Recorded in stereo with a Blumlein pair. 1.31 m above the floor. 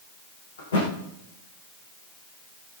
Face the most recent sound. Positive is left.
turn(degrees=65)